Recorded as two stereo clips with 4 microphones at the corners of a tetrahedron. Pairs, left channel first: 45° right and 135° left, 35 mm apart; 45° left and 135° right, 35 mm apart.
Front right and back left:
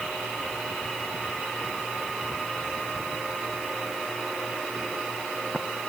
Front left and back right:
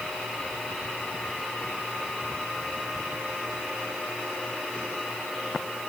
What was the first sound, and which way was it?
Only background noise.